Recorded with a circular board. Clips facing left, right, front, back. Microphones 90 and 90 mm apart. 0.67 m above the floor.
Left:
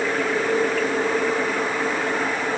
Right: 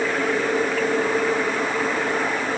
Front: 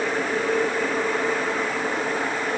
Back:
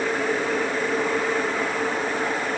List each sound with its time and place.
Only background noise.